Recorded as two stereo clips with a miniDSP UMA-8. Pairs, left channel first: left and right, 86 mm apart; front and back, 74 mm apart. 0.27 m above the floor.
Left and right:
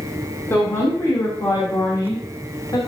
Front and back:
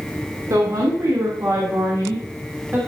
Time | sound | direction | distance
0.5 | a woman speaking | 150° left | 3.5 m